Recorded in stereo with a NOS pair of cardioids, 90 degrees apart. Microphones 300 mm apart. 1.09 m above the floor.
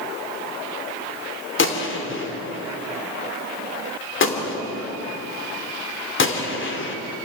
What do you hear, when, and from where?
1.6 s a gunshot: 40° left, 3 m